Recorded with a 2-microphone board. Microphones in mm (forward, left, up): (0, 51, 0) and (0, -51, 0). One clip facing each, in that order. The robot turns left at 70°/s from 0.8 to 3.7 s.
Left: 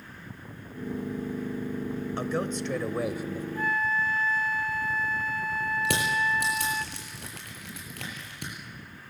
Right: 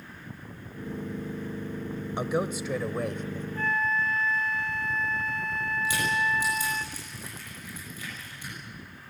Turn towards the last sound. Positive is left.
turn(degrees=80)